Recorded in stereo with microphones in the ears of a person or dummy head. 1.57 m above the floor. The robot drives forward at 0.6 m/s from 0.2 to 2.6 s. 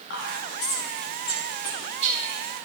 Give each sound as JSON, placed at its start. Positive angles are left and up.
{"t": 0.1, "sound": "whispering", "side_deg": 55, "distance_m": 1.4}